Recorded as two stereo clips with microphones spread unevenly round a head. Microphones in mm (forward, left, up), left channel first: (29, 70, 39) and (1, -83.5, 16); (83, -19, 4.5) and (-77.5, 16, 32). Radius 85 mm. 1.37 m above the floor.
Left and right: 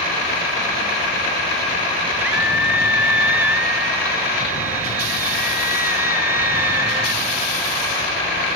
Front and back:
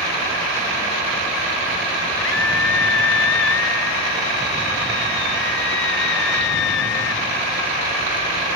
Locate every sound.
2.2 s a scream: 20° right; by 7.2 s 25° right